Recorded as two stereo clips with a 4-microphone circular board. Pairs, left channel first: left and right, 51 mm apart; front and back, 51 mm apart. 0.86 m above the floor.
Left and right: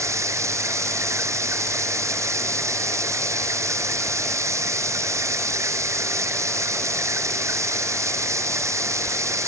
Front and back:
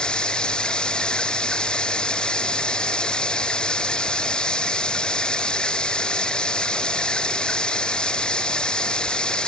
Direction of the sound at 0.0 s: 75° right.